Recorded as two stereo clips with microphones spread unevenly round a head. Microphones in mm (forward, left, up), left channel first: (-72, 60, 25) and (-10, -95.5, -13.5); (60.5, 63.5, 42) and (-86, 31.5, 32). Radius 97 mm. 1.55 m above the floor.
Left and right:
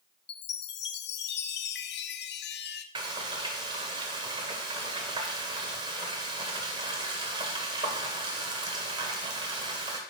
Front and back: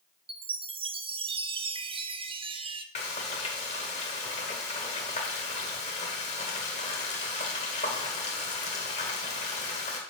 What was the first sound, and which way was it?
A chime, 140° left.